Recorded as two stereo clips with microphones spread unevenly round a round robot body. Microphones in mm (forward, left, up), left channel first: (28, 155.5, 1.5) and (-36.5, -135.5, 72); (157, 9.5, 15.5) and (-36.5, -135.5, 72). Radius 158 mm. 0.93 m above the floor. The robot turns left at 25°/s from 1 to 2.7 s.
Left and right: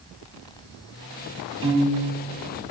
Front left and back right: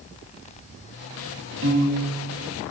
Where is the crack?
I don't hear a crack.